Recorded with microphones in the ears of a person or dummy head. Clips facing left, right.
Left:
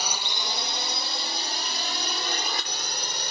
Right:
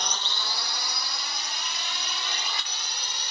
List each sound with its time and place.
0.0 s a drone: 5° left (ahead or behind); by 3.3 s 40° left (ahead or behind)